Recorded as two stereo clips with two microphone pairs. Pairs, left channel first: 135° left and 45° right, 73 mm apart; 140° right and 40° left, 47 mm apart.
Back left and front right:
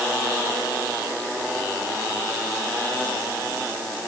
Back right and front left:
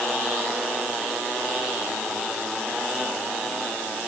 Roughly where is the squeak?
No squeak in this recording.